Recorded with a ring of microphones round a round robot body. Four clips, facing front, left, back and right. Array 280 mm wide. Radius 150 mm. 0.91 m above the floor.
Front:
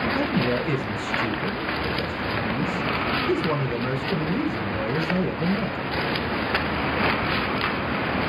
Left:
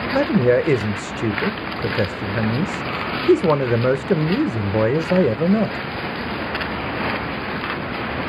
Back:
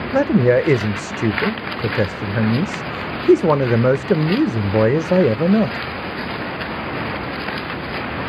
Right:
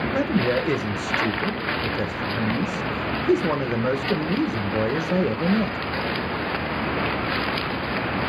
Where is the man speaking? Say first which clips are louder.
Left 7 dB, back 14 dB; 155° left, 0.5 m.